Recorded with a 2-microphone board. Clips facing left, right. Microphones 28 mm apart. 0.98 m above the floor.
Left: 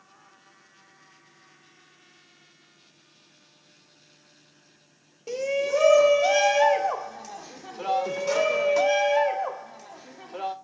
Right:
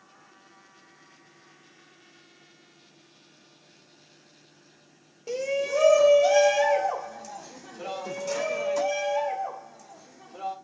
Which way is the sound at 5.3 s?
5° left (ahead or behind).